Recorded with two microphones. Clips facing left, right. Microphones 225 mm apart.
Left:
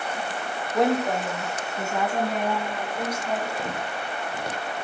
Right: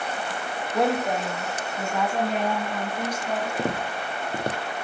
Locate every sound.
0.7 s a woman speaking: 5° right (ahead or behind), 1.1 m; by 3.5 s 10° left (ahead or behind), 3.5 m
3.6 s footsteps: 60° right (ahead or behind), 0.7 m